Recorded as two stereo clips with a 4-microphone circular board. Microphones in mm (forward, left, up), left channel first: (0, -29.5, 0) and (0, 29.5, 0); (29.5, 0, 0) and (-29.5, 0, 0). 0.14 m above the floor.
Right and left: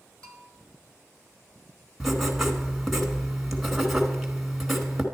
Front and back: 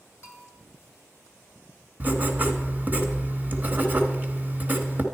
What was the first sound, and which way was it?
A bell, 45° right.